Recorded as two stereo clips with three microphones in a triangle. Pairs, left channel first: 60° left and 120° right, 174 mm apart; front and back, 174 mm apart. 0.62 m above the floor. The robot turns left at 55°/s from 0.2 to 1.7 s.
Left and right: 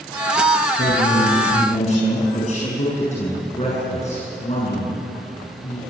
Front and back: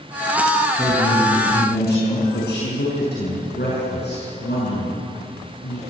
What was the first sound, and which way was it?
A man speaking, 60° left.